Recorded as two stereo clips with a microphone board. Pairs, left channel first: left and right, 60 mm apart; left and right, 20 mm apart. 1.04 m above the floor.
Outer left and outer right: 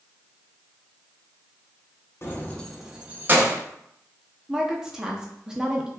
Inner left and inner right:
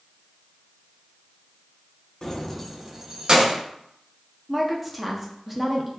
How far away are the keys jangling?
About 0.6 m.